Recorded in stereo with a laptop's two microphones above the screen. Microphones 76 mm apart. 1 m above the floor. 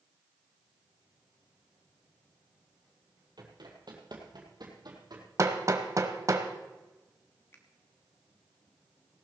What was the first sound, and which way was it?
Running footsteps, 65° right (ahead or behind).